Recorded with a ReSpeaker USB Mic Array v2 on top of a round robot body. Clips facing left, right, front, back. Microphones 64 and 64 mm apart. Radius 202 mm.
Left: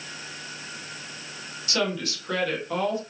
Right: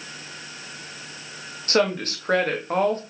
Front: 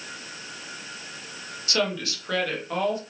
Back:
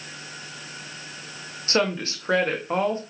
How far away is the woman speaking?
About 1.9 m.